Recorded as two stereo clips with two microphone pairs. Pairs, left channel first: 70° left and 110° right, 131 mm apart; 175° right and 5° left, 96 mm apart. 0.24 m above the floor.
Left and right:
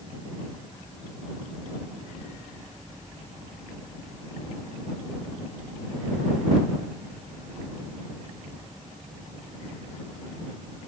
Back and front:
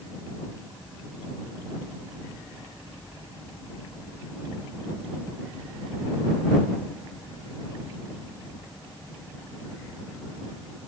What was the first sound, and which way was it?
Only background noise.